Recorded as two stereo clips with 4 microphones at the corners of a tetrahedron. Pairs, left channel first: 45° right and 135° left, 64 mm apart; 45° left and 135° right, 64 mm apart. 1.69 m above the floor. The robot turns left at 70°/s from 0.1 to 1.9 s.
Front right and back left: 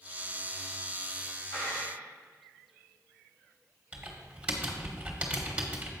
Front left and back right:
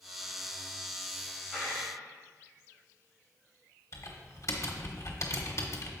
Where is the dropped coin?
60° right, 3.5 m; by 1.9 s 85° right, 3.5 m.